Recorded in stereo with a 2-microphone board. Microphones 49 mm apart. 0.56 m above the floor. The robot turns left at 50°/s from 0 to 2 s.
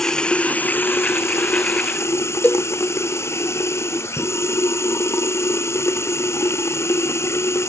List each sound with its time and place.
0.0 s running water: 175° left; by 7.7 s 75° left
2.4 s a cowbell: 40° left (ahead or behind)